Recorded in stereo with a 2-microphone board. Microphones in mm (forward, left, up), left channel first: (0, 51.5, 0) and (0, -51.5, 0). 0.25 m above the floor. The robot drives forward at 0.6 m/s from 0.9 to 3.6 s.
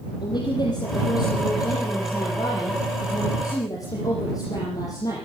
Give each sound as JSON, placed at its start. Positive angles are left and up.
{"t": 0.2, "sound": "a woman speaking", "side_deg": 45, "distance_m": 6.0}